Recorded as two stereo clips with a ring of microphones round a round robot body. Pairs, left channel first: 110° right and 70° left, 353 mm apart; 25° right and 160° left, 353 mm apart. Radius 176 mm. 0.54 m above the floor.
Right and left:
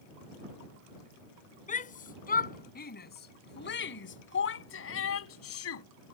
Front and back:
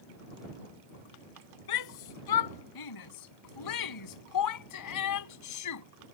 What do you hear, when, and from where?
1.7 s a shout: 45° right; by 5.8 s 65° right